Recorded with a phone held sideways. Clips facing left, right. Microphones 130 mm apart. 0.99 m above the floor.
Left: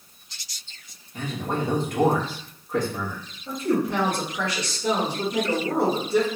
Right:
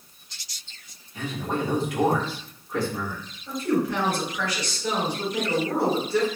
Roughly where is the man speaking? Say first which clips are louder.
Even; left.